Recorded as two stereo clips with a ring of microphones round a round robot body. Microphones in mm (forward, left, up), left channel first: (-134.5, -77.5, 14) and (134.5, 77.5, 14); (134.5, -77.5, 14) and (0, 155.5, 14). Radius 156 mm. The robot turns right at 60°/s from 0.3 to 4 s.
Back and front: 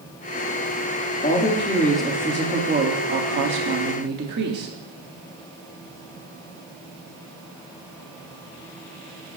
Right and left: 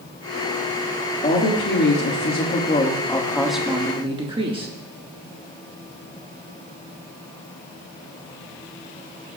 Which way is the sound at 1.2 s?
105° right.